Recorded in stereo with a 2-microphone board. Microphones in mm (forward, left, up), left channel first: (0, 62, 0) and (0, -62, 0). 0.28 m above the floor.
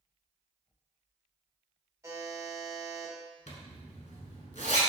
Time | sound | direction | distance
2.0 | a buzzer | 20° right (ahead or behind) | 1.1 m
3.5 | a zipper | 70° left (ahead or behind) | 0.8 m